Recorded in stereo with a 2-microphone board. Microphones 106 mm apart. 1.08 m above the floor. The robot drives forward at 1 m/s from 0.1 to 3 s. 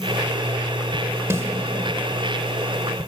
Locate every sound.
1.3 s a snare drum: 25° right (ahead or behind), 1.6 m